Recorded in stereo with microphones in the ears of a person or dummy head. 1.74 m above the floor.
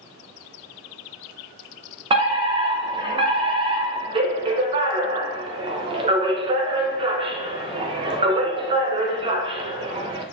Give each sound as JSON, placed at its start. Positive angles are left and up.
{"t": 2.1, "sound": "a fire alarm", "side_deg": -30, "distance_m": 0.9}